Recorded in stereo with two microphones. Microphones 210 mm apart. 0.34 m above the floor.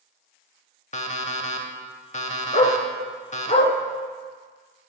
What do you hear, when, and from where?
0.9 s an alarm clock: 35° left (ahead or behind), 0.6 m
2.5 s a dog barking: 35° left (ahead or behind), 0.9 m